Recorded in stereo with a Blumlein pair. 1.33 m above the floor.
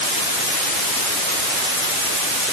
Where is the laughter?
I don't hear laughter.